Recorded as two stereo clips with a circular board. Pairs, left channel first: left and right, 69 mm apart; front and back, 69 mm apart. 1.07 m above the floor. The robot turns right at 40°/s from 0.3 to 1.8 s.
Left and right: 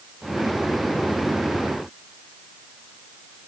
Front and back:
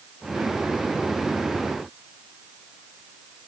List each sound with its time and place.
Only background noise.